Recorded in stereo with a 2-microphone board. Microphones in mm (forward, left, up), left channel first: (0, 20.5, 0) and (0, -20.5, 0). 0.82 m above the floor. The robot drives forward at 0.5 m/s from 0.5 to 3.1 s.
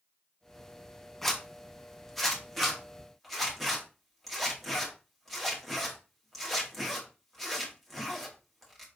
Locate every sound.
1.2 s a zipper: 10° left (ahead or behind), 1.0 m; by 8.8 s 5° left (ahead or behind), 1.8 m